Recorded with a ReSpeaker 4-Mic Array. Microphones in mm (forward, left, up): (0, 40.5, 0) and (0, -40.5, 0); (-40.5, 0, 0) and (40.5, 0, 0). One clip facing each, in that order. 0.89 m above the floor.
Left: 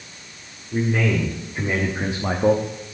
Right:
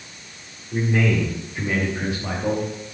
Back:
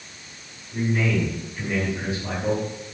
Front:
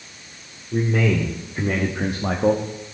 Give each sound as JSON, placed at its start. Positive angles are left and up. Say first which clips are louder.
{"t": 0.7, "sound": "a man speaking", "louder": "even, front 3 dB", "azimuth_deg": 0, "distance_m": 2.5}